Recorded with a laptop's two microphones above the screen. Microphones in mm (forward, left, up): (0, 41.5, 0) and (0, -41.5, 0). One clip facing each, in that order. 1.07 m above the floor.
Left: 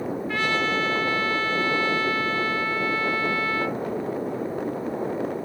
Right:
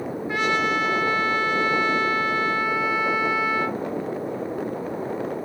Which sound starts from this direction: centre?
A trumpet, at 0.3 s.